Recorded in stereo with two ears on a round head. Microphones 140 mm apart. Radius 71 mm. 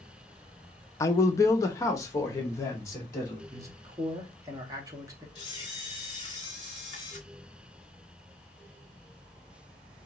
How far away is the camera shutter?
About 2.5 m.